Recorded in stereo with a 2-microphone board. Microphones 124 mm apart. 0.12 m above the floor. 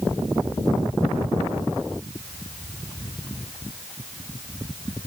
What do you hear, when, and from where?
Only background noise.